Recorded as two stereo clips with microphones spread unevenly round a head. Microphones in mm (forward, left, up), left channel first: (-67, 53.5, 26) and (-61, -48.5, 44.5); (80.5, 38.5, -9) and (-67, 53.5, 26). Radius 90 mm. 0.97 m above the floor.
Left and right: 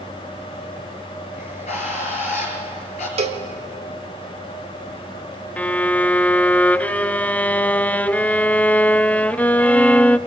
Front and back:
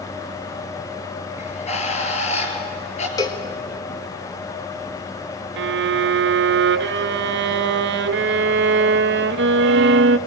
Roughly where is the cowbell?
Ahead right.